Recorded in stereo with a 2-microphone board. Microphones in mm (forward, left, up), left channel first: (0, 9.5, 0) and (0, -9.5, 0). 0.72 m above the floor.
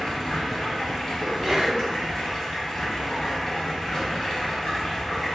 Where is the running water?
40° left (ahead or behind), 0.9 m.